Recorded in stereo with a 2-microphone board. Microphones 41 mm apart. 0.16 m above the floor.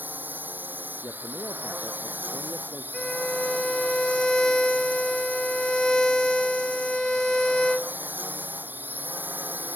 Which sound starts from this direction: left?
A man speaking, at 1.0 s.